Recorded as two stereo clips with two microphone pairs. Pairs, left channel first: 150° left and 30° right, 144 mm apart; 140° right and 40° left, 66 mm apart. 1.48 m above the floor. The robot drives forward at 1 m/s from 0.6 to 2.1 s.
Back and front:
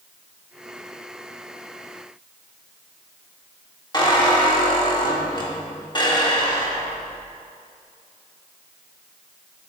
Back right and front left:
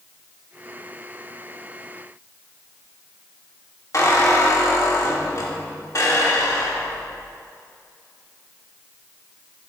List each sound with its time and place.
3.9 s a squeak: 160° right, 1.6 m